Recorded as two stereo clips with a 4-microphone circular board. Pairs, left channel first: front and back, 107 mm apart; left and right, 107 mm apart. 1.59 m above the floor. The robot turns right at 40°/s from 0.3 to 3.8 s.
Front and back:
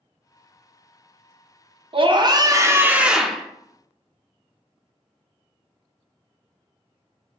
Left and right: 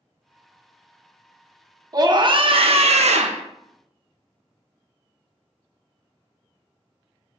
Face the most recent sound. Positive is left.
turn(degrees=-70)